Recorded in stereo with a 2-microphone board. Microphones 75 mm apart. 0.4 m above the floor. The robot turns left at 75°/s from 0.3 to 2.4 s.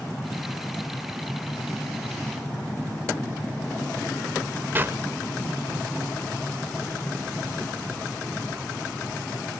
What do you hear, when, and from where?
4.8 s a clap: 25° right (ahead or behind), 0.9 m